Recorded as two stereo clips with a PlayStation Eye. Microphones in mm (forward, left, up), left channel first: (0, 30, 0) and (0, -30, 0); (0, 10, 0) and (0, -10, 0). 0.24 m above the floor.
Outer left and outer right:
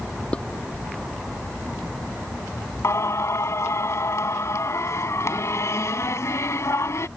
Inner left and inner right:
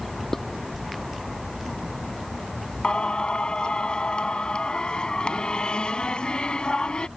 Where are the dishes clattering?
20° left (ahead or behind).